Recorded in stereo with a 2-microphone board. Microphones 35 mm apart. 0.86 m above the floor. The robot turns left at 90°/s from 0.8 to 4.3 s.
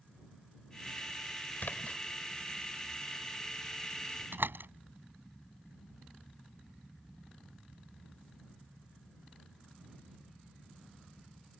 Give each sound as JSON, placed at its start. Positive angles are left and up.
{"t": 1.6, "sound": "a splash", "azimuth_deg": 75}
{"t": 4.3, "sound": "a door slam", "side_deg": -90}